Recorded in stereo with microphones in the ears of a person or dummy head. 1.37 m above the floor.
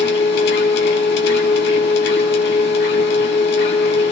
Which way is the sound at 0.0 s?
65° left (ahead or behind).